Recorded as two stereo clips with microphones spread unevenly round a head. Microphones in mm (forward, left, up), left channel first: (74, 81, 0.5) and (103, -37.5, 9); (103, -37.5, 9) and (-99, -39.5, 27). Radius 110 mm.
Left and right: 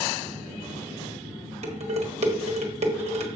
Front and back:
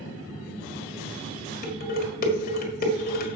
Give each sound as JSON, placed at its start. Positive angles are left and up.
{"t": 1.6, "sound": "dishes clattering", "azimuth_deg": -45, "distance_m": 1.6}